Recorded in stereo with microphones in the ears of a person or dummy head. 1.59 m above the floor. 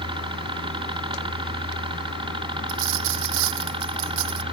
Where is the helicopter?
30° right (ahead or behind); by 4.5 s 35° right (ahead or behind).